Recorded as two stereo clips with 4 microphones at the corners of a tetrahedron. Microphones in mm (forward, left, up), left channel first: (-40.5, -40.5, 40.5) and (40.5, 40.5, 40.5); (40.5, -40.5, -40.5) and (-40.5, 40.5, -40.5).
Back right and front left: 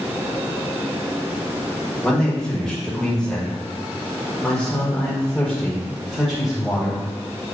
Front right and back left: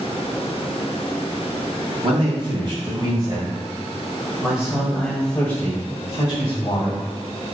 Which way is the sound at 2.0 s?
145° left.